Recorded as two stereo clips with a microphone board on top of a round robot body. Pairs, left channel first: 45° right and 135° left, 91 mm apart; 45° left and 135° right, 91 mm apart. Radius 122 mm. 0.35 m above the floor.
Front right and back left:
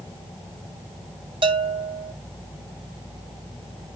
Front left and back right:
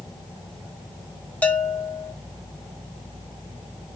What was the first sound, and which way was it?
A bell, 115° left.